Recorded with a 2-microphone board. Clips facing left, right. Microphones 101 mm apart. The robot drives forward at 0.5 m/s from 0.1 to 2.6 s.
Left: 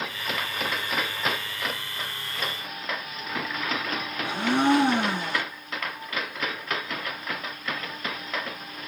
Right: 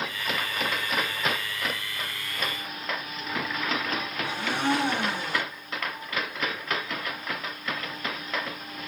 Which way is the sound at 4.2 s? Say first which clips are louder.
Left 6 dB; 60° left (ahead or behind).